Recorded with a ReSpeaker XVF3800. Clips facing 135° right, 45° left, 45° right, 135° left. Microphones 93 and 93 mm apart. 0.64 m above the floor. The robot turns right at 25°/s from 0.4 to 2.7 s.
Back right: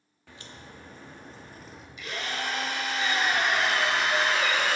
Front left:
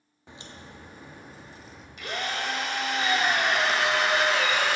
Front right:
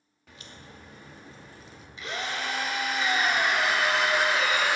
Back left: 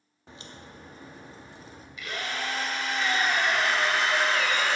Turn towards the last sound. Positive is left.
turn(degrees=30)